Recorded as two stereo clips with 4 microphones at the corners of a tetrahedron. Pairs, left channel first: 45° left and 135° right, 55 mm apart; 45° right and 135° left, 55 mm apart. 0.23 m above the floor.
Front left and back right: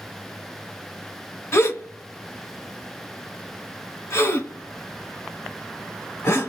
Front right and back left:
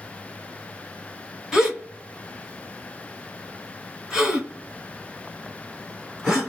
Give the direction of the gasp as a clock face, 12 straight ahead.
10 o'clock.